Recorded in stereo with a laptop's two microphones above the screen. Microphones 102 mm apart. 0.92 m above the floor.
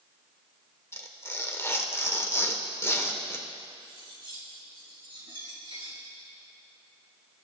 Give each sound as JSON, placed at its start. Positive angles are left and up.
{"t": 0.9, "sound": "tearing paper", "side_deg": 25, "distance_m": 1.3}
{"t": 3.8, "sound": "cutlery clinking", "side_deg": -55, "distance_m": 5.5}